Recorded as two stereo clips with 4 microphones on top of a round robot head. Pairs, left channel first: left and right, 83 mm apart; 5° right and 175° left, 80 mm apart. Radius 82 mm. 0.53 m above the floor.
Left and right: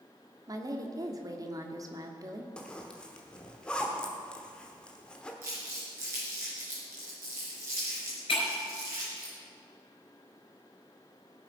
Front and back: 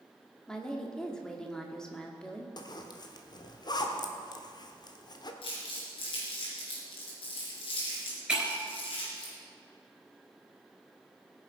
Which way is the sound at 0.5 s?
85° right.